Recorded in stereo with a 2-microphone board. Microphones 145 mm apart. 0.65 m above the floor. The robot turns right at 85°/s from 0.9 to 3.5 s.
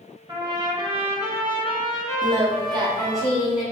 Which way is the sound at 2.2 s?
120° right.